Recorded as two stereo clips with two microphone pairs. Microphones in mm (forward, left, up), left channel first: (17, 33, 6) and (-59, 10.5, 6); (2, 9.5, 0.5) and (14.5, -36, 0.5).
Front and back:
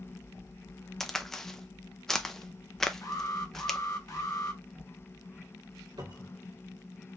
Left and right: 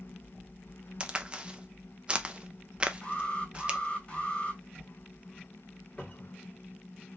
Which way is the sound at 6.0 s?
170° left.